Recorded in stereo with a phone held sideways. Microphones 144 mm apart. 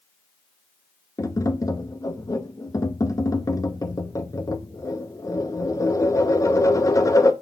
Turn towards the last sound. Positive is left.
turn(degrees=20)  # may be behind; listen again after turning